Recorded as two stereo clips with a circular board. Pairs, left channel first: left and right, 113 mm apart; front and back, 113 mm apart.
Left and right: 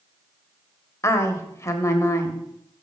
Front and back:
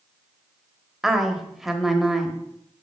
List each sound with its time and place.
1.0 s a woman speaking: 95° left, 1.1 m